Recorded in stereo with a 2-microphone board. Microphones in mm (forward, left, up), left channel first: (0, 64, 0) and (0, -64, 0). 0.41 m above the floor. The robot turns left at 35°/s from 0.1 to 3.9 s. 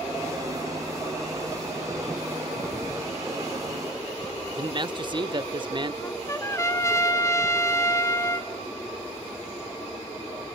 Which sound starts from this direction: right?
A man speaking, at 4.6 s.